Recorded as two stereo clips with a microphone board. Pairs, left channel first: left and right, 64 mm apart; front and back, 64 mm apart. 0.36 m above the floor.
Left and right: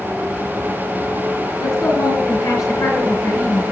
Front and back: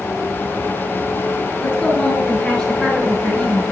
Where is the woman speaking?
85° left, 5 m.